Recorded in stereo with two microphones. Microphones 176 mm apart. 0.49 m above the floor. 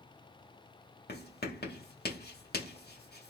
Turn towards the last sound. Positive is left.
turn(degrees=65)  # may be behind; listen again after turning